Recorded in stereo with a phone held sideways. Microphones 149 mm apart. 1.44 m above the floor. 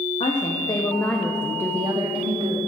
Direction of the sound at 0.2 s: 45° left (ahead or behind).